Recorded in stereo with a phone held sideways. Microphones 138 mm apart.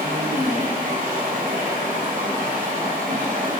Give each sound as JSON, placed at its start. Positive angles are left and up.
{"t": 0.0, "sound": "running water", "side_deg": -70, "distance_m": 2.5}